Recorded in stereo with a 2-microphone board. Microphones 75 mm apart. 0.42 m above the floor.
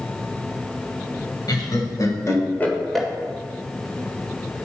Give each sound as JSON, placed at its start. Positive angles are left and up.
{"t": 1.5, "sound": "laughter", "side_deg": 65, "distance_m": 2.0}